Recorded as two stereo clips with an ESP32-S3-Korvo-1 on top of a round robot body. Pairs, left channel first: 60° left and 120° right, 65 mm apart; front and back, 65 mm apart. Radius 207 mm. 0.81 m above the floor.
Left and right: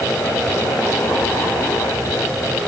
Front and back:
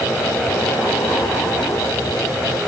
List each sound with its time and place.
Only background noise.